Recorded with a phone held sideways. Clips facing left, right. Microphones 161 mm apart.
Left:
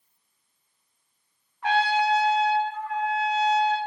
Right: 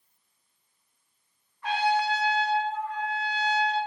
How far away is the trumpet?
About 1.1 m.